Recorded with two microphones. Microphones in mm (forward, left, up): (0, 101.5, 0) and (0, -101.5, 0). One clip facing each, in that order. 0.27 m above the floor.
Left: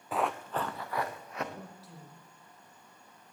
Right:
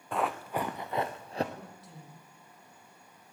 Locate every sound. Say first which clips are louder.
0.1 s running footsteps: even; 5° left (ahead or behind), 1.1 m; by 1.4 s 30° right (ahead or behind), 1.8 m
1.6 s a man speaking: left 1 dB; centre (ahead or behind), 8.5 m